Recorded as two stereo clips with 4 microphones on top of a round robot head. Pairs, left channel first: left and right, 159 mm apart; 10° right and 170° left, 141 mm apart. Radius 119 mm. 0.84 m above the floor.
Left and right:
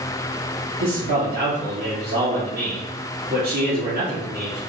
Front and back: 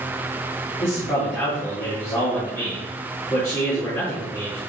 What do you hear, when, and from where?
0.8 s a man speaking: 80° right, 1.8 m